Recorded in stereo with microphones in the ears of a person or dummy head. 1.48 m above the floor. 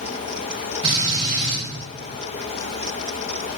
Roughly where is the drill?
Right.